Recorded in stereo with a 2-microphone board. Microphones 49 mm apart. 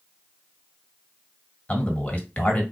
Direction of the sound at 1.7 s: 30° left (ahead or behind).